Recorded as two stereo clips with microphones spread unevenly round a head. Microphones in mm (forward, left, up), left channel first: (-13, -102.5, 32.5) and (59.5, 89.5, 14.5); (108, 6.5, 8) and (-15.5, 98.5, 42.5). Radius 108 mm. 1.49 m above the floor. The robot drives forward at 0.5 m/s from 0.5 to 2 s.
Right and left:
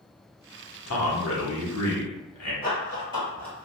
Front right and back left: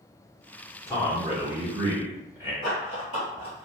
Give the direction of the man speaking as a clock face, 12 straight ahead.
4 o'clock.